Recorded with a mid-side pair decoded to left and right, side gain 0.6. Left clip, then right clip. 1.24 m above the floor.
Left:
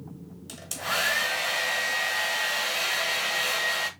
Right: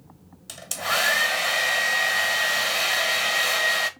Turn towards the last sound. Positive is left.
turn(degrees=-25)